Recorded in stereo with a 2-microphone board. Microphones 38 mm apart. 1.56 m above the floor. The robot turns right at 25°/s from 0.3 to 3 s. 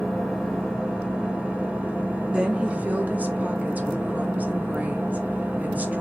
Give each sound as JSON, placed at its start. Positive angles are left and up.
{"t": 0.0, "sound": "an engine running", "azimuth_deg": -175, "distance_m": 2.0}
{"t": 2.3, "sound": "a woman speaking", "side_deg": -30, "distance_m": 0.8}